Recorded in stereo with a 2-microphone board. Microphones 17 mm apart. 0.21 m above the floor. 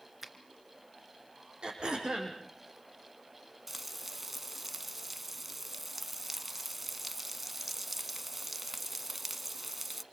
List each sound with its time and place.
0.2 s a finger snap: 15° right (ahead or behind), 3 m
1.6 s throat clearing: 55° right (ahead or behind), 7 m
3.7 s frying: 10° right (ahead or behind), 0.9 m